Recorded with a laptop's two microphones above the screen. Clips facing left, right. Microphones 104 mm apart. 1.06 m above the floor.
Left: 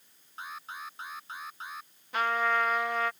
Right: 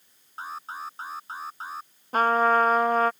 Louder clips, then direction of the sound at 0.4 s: Right 6 dB; 35° right (ahead or behind).